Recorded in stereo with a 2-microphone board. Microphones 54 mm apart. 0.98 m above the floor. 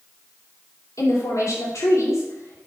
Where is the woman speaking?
75° left (ahead or behind), 3 m.